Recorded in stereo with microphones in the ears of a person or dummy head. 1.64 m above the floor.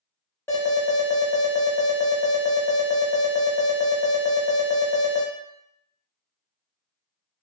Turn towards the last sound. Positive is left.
turn(degrees=10)  # may be behind; listen again after turning